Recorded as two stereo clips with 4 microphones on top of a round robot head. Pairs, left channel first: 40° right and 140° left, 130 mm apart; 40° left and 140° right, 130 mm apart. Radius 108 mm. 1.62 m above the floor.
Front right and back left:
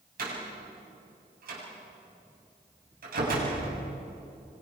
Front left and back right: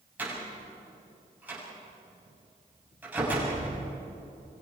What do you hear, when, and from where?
0.2 s a door slam: 145° left, 8 m